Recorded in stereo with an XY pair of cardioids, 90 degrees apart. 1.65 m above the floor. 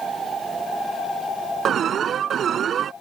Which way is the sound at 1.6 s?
65° right.